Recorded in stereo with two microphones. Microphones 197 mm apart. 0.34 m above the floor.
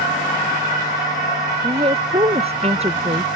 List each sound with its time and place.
1.6 s a woman speaking: 30° right (ahead or behind); by 3.3 s 35° right (ahead or behind)